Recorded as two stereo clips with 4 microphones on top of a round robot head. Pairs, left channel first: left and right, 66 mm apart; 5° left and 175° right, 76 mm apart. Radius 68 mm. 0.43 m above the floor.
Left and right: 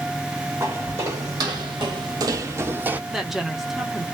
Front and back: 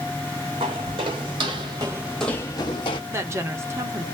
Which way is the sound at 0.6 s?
155° right.